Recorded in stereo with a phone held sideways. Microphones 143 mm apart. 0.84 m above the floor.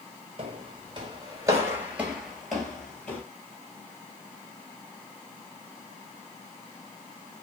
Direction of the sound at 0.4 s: 40° right (ahead or behind).